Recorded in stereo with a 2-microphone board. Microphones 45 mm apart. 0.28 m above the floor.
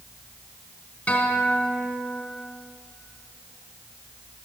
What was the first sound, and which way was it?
A guitar, 30° left (ahead or behind).